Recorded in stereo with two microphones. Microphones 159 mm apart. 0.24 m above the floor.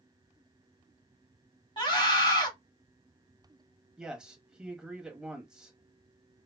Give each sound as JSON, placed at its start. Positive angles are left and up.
{"t": 1.8, "sound": "a scream", "side_deg": 30, "distance_m": 1.2}
{"t": 4.0, "sound": "a man speaking", "side_deg": -5, "distance_m": 1.0}